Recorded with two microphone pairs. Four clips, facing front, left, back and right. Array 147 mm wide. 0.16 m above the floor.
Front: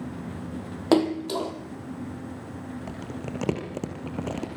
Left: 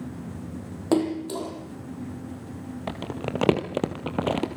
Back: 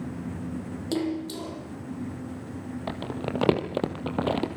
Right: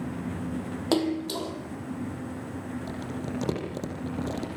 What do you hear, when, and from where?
0.9 s a splash: 5° right, 3 m
2.9 s crumpling: 130° left, 2.5 m